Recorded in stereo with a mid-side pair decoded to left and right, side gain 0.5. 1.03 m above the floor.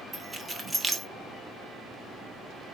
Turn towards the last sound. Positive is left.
turn(degrees=-25)